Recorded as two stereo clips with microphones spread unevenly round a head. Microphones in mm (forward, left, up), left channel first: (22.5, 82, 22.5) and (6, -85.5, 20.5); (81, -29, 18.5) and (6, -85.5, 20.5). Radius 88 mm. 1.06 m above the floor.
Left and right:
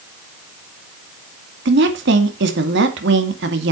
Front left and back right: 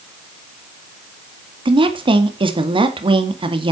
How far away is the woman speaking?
About 2 m.